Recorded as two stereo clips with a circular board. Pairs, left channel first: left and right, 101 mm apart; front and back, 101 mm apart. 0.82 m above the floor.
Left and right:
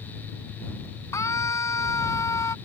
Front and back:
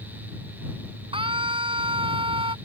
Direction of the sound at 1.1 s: 150° left.